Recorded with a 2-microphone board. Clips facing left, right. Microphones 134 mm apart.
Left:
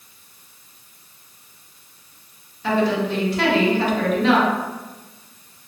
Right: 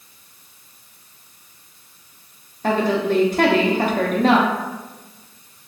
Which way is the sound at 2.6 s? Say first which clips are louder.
Right 1 dB; 45° right (ahead or behind).